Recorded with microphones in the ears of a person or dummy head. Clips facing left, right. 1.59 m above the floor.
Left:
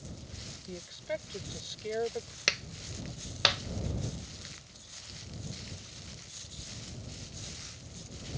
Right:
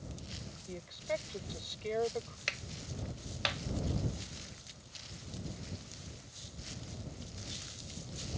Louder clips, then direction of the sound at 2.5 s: Left 4 dB; 65° left (ahead or behind).